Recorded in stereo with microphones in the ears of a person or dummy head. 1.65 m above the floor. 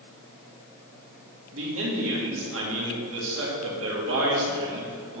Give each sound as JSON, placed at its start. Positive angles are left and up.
{"t": 1.5, "sound": "a man speaking", "side_deg": -75, "distance_m": 2.5}